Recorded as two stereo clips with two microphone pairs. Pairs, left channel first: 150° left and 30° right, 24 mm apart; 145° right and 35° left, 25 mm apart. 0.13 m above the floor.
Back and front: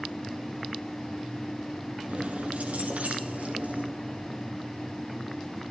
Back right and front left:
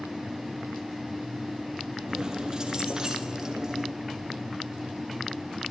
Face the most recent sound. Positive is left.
turn(degrees=-35)